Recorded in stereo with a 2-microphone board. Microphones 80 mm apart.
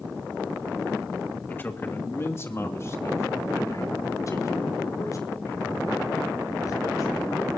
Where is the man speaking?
25° left (ahead or behind), 2 m; by 7.6 s 45° left (ahead or behind), 8 m.